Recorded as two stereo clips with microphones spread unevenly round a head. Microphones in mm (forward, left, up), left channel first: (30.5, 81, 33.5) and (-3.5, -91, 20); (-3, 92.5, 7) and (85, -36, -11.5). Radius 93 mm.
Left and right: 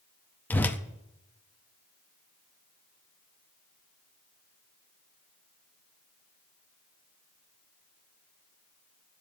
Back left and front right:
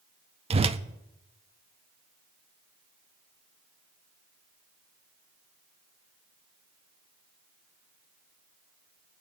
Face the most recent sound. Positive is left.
turn(degrees=0)